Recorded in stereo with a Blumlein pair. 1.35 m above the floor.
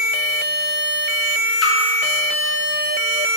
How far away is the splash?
About 1.3 m.